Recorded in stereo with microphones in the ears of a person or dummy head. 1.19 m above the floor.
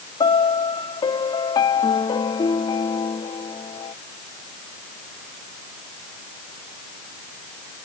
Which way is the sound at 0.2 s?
20° left (ahead or behind).